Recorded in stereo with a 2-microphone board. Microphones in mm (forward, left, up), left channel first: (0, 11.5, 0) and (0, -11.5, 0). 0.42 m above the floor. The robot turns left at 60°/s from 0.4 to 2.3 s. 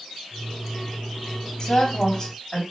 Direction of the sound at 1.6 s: 60° left.